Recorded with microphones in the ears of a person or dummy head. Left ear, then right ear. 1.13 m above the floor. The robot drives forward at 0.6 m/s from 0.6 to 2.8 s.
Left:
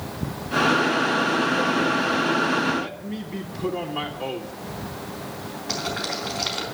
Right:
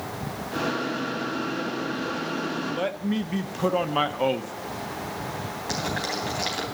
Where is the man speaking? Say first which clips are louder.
Even; 50° right (ahead or behind), 0.6 m; by 4.5 s 45° right (ahead or behind), 0.6 m.